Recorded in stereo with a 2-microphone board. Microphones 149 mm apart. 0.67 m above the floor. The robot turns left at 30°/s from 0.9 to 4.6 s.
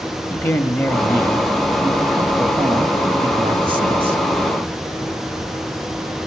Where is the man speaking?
25° left, 1.3 m; by 4.2 s 75° right, 1.3 m.